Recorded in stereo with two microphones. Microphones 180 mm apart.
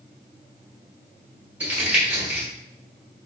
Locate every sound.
1.6 s crumpling: 10° right (ahead or behind), 1.5 m